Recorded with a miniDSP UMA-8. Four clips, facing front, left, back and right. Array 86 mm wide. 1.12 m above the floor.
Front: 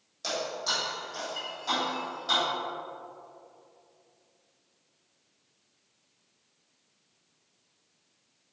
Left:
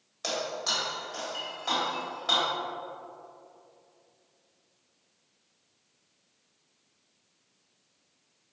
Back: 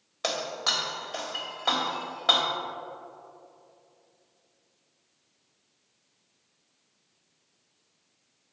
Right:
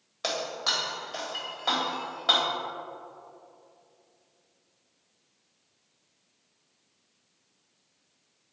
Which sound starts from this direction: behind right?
Breaking glass, at 0.2 s.